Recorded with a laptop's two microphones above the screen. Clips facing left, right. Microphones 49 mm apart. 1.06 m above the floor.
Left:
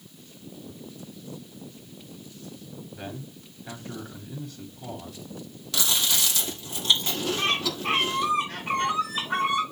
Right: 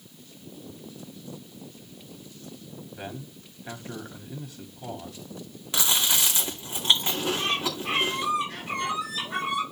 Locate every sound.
2.9 s a man speaking: 10° right (ahead or behind), 3.5 m
5.7 s chewing: 25° right (ahead or behind), 2.5 m
7.4 s a bird: 50° left (ahead or behind), 4.5 m